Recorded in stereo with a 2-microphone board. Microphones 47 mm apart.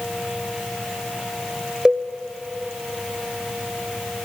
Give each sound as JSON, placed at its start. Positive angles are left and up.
{"t": 1.9, "sound": "a cowbell", "side_deg": -15, "distance_m": 0.7}